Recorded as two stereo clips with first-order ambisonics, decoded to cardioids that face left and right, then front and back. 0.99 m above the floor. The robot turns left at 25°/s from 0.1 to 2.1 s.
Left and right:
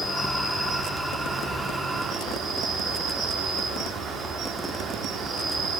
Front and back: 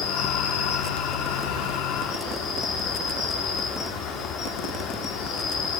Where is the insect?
15° left, 1.1 m; by 5.8 s 35° right, 1.1 m.